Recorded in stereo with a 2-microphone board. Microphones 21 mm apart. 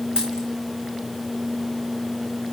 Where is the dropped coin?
40° right (ahead or behind), 5 m.